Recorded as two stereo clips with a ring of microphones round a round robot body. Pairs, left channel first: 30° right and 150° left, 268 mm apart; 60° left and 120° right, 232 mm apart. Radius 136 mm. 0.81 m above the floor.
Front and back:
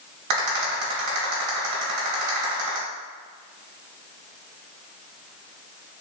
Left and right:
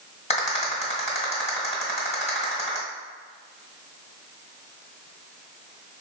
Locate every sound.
0.3 s a rattle: 125° left, 1.6 m